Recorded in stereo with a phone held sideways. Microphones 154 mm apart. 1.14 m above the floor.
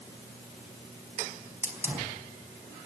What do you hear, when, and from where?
1.6 s a hiss: 10° right (ahead or behind), 4.5 m